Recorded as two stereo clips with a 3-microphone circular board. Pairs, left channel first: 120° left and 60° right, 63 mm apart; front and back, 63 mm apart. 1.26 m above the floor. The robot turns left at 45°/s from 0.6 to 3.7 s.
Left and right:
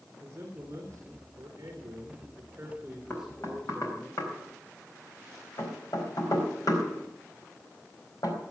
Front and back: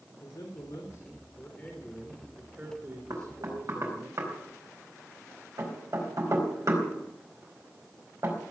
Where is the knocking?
170° left, 4.5 m; by 8.4 s 145° left, 4.5 m.